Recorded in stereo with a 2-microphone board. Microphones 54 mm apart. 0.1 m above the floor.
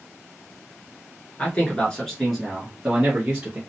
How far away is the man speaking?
About 1.3 m.